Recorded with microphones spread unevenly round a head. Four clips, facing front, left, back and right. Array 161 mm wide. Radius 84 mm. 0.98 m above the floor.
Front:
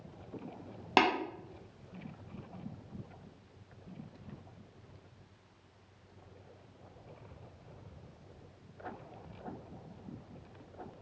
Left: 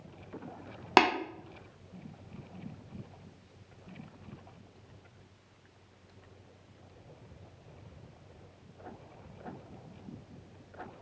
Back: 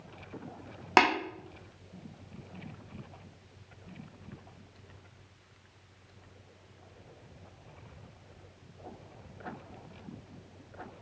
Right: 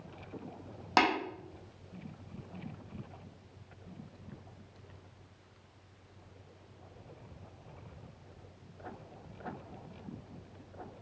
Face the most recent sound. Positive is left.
turn(degrees=150)